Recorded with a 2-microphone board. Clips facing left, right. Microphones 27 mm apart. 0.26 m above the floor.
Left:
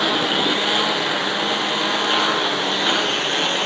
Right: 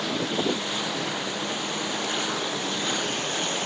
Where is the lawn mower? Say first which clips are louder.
Left 8 dB; 70° left (ahead or behind); by 3.7 s 45° left (ahead or behind).